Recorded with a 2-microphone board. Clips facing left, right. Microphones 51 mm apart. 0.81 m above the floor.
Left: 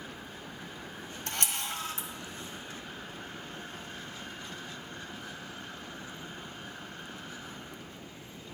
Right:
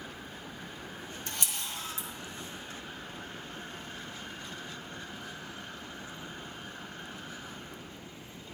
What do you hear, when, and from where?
1.3 s a camera shutter: 55° left (ahead or behind), 1.5 m